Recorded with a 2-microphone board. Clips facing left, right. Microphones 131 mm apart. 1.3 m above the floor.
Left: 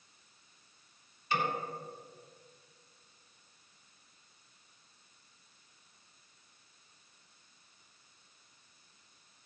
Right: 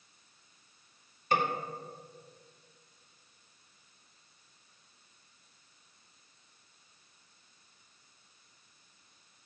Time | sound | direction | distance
1.3 | a snare drum | 50° right (ahead or behind) | 2 m